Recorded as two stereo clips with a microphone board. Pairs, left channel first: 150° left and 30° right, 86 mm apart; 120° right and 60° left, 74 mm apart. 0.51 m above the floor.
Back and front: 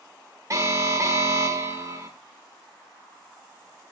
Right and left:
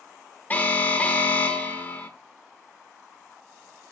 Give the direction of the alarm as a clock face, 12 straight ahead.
2 o'clock.